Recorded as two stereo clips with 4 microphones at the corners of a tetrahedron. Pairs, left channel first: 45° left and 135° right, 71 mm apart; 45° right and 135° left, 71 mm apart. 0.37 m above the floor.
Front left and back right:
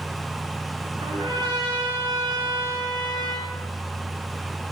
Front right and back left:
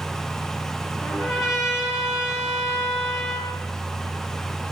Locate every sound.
1.0 s a trumpet: 135° right, 4.5 m